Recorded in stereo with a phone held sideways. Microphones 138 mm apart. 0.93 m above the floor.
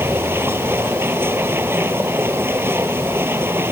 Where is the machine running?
15° right (ahead or behind).